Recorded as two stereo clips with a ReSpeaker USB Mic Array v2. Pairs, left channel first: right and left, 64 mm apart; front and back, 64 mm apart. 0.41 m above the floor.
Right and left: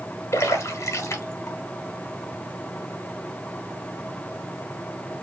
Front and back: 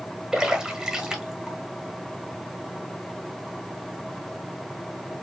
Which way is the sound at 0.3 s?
105° right.